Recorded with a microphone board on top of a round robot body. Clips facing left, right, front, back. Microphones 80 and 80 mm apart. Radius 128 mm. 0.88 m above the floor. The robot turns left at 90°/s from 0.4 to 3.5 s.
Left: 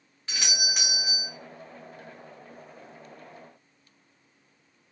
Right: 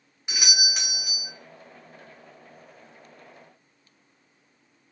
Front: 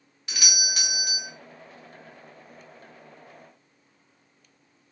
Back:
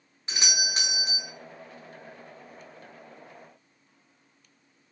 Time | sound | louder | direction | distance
0.3 | a doorbell | right 2 dB, back 2 dB | 155° right | 1.2 m